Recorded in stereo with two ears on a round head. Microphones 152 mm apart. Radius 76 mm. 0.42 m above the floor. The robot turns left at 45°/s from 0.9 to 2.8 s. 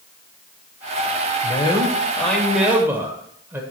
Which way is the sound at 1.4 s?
45° left.